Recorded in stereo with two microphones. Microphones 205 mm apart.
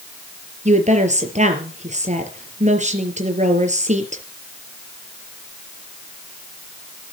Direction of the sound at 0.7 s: 35° right (ahead or behind).